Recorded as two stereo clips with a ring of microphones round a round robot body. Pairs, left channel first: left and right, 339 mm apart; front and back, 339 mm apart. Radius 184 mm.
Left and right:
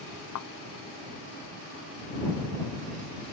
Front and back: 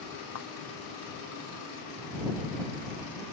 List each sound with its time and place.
0.3 s a thud: 50° left